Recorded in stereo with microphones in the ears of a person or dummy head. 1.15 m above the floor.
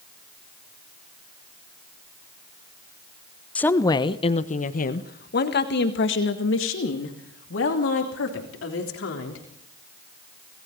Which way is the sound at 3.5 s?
10° left (ahead or behind).